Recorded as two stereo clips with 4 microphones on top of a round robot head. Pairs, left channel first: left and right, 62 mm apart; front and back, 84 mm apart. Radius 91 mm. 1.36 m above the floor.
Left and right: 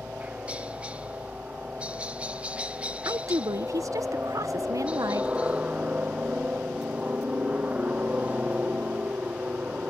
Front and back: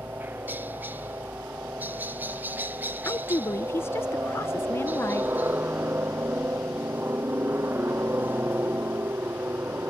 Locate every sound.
0.0 s a helicopter: 140° right
3.0 s a woman speaking: 60° right